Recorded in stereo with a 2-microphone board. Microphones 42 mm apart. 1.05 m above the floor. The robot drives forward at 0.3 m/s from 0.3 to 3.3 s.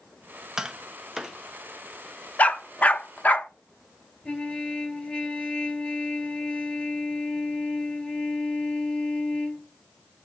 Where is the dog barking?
35° left (ahead or behind), 0.6 m.